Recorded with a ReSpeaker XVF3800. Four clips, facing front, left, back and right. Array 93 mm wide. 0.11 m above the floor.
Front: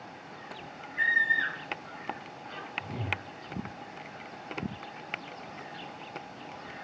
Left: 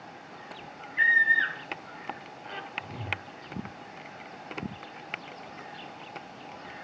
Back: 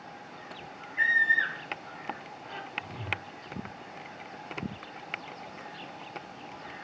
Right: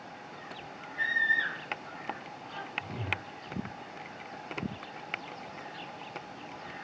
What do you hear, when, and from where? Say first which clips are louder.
1.0 s a scream: left 6 dB, back 2 dB; 115° left, 1.8 m
2.8 s a whoosh: right 3 dB, front 3 dB; 30° right, 1.9 m